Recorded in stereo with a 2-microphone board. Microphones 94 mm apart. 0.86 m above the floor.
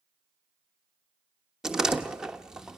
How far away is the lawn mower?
No lawn mower in this recording.